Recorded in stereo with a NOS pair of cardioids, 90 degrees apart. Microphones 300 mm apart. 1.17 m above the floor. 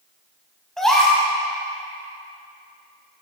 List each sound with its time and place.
0.8 s a gasp: straight ahead, 4 m